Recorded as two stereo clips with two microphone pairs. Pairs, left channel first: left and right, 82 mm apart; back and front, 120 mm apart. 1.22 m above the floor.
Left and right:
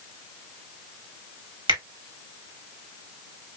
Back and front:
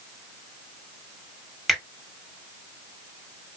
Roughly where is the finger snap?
Right.